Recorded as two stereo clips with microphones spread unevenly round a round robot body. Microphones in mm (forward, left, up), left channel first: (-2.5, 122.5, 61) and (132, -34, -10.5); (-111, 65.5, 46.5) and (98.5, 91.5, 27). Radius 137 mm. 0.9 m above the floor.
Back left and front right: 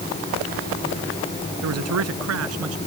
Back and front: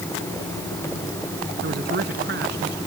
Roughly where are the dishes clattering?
No dishes clattering in this recording.